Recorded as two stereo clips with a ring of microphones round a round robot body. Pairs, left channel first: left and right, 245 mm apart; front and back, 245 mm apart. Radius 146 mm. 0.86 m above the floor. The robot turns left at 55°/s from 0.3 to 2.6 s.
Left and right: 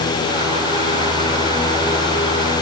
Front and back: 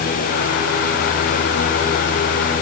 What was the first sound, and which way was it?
Only background noise.